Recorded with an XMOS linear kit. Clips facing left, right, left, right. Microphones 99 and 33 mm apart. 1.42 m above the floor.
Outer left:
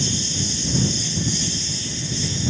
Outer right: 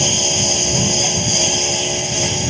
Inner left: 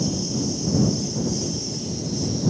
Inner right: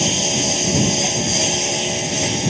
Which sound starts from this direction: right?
A lawn mower, at 0.0 s.